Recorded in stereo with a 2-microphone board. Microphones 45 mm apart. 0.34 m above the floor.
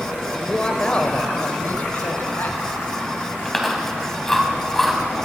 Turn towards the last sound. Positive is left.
turn(degrees=5)  # may be behind; listen again after turning